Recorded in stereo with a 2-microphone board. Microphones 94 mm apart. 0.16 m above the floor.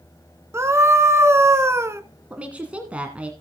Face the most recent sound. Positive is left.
turn(degrees=-15)  # may be behind; listen again after turning